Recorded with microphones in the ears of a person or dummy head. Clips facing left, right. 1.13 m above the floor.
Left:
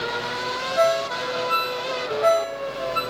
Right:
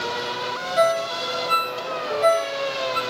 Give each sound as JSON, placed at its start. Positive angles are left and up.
{"t": 0.8, "sound": "a ringtone", "side_deg": -25, "distance_m": 0.8}